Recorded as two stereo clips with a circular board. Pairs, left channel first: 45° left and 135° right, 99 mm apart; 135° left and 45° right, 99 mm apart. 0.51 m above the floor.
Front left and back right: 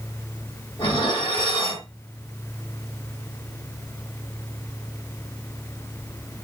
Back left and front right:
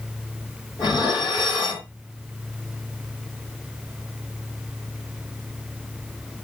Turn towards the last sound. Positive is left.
turn(degrees=90)